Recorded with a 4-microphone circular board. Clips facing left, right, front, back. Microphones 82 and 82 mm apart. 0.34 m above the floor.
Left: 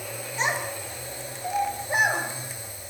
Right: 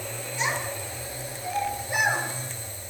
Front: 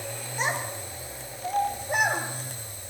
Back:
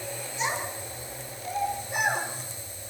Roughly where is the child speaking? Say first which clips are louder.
Left 2 dB, front 2 dB; ahead left.